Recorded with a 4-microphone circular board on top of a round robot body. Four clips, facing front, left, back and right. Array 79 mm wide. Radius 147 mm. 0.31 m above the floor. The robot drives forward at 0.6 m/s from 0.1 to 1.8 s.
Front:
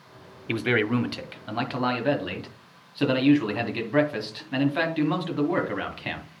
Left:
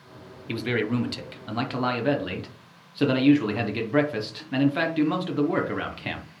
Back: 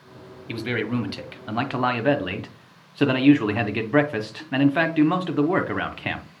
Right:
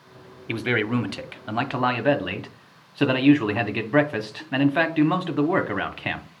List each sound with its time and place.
0.5 s a man speaking: 40° right, 1.1 m; by 6.2 s 135° right, 1.0 m